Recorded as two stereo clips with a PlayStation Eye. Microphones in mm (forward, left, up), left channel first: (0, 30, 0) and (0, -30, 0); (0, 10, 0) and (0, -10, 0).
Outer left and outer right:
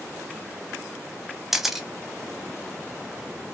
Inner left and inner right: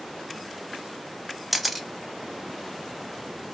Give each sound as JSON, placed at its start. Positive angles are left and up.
{"t": 1.5, "sound": "a camera shutter", "side_deg": -5, "distance_m": 0.6}